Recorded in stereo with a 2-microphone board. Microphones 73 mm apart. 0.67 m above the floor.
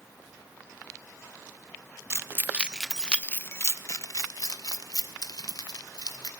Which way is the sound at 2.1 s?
40° right (ahead or behind).